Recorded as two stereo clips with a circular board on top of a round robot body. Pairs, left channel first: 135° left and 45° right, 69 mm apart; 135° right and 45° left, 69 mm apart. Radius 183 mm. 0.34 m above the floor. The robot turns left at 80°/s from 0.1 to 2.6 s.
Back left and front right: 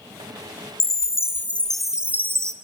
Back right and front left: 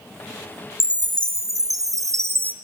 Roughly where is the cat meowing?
I don't hear a cat meowing.